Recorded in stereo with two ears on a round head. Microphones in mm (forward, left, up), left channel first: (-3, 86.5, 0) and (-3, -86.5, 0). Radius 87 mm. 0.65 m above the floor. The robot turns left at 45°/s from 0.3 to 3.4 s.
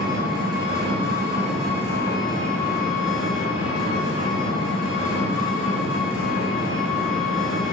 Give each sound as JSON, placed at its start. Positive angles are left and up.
{"t": 0.0, "sound": "an engine running", "azimuth_deg": -120, "distance_m": 3.0}